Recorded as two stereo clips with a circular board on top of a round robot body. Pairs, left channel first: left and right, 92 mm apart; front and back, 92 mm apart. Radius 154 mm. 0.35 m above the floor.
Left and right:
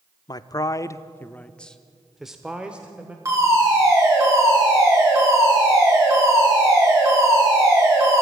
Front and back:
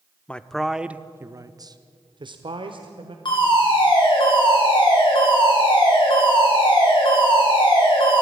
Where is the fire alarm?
35° right, 9.5 m.